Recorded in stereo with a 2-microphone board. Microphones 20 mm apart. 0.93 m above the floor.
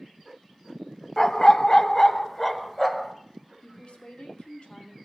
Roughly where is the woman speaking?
Left.